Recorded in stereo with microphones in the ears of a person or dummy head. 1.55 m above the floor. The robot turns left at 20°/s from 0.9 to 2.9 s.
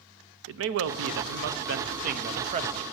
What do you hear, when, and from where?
0.5 s a man speaking: 110° right, 0.8 m; by 2.8 s 145° right, 0.8 m